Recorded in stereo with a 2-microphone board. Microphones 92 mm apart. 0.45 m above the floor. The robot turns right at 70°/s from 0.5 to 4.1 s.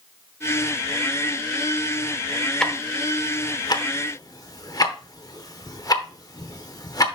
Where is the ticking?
5° left (ahead or behind), 0.8 m; by 7.2 s 40° left (ahead or behind), 0.8 m.